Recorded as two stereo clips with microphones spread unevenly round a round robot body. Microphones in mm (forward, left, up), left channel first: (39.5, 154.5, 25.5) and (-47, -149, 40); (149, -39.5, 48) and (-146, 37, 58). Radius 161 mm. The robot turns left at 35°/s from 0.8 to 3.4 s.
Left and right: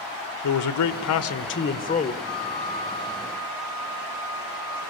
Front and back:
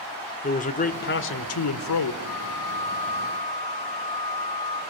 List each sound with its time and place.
0.4 s a man speaking: 50° left, 1.6 m; by 2.1 s straight ahead, 1.6 m
2.2 s a flute: 25° left, 9 m; by 4.8 s 15° right, 9 m